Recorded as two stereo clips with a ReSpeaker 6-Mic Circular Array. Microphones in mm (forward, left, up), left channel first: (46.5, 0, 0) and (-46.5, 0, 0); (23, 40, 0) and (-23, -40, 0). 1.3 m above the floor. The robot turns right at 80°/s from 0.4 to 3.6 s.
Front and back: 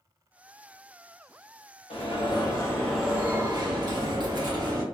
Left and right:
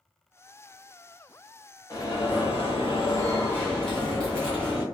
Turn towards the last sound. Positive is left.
turn(degrees=140)